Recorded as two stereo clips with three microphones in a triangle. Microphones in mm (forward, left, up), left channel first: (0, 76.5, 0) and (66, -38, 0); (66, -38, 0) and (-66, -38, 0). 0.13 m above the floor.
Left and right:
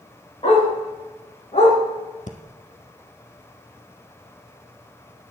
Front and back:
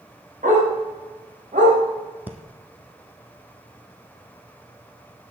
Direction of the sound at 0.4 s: 165° left.